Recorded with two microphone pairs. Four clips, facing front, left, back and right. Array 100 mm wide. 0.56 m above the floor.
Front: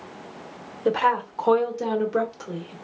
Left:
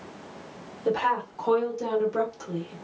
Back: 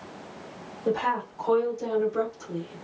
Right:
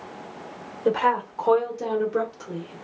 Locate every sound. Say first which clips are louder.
0.8 s a woman speaking: right 3 dB, front 5 dB; 30° right, 1.0 m; by 2.7 s 5° left, 1.8 m